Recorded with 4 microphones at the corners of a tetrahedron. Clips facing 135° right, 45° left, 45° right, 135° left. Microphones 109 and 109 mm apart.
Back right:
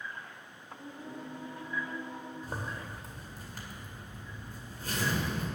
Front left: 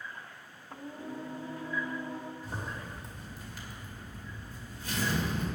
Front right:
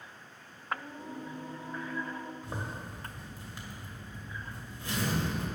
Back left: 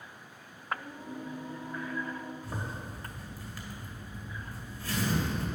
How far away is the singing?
About 1.1 m.